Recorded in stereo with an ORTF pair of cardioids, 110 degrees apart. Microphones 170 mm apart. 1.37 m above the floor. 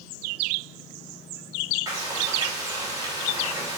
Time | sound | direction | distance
1.9 | frying | 25° right | 4 m